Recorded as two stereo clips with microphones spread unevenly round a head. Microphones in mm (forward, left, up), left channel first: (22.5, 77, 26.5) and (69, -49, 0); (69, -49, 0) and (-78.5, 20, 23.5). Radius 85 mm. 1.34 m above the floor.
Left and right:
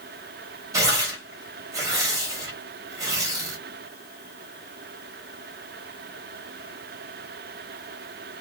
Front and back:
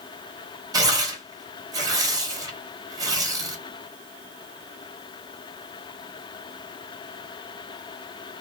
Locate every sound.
0.7 s tearing paper: 135° right, 0.9 m